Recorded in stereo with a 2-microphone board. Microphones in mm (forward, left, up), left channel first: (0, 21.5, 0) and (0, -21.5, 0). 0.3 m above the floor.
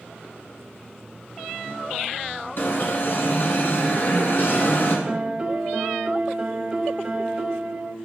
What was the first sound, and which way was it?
An alarm, 55° left (ahead or behind).